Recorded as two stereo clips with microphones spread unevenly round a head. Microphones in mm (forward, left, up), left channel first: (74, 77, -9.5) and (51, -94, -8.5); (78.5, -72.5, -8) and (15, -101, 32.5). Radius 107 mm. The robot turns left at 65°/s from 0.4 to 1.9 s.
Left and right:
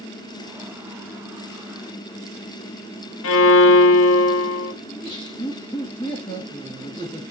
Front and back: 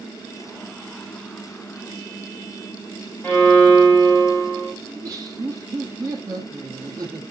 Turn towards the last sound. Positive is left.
turn(degrees=150)